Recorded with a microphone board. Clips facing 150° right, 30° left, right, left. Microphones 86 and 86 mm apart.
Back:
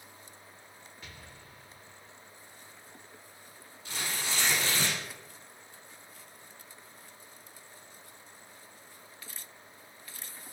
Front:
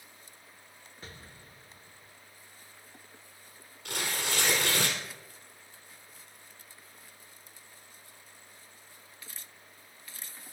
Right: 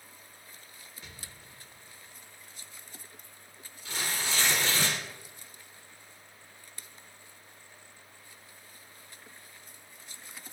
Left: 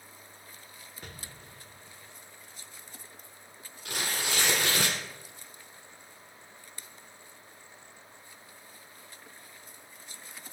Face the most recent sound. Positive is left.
turn(degrees=60)